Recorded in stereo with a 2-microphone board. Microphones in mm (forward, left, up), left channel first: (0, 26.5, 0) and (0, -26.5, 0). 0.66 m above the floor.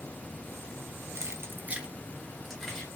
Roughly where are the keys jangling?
Right.